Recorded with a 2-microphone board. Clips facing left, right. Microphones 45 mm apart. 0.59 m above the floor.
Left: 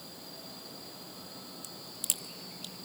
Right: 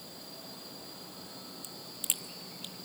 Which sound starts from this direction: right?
A crack, at 1.6 s.